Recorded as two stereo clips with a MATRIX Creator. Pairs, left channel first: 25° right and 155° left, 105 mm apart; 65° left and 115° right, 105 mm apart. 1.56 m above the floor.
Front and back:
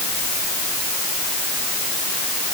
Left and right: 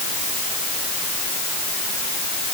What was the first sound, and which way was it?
Only background noise.